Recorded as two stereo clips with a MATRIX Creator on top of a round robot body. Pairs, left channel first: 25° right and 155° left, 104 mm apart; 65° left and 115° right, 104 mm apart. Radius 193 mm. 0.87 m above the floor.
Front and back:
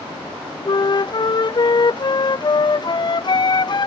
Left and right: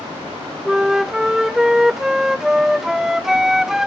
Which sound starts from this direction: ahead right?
A flute, at 0.7 s.